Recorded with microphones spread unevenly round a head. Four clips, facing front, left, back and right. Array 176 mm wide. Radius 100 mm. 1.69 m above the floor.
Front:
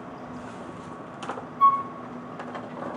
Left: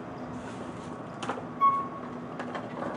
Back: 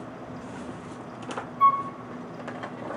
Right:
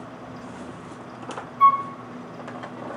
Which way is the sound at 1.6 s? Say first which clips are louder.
Right 7 dB, front 1 dB; 35° right.